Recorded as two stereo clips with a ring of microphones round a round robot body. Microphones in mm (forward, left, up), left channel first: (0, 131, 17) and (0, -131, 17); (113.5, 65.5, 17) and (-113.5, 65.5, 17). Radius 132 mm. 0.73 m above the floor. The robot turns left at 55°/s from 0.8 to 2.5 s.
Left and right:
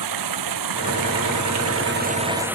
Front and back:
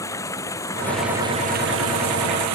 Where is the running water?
80° right; by 2.6 s 175° right.